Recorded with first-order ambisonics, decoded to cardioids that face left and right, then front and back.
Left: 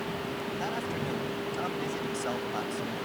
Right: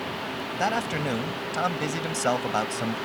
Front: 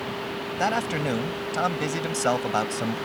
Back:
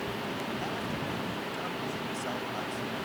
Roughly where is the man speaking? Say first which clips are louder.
Right 10 dB, front 9 dB; ahead right.